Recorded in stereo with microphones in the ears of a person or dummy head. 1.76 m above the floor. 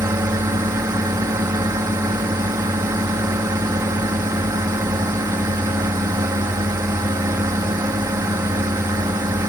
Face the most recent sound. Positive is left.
turn(degrees=-20)  # may be behind; listen again after turning